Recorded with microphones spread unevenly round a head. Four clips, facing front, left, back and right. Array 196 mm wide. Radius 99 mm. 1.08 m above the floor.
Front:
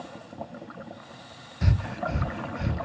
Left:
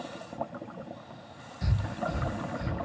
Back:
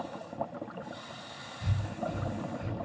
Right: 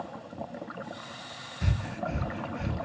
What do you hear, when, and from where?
1.6 s breathing: 5° right, 0.7 m